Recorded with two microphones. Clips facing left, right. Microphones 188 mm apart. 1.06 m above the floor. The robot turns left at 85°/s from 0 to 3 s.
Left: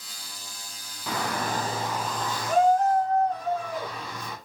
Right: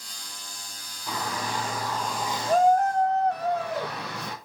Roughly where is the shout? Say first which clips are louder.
Left 2 dB; left.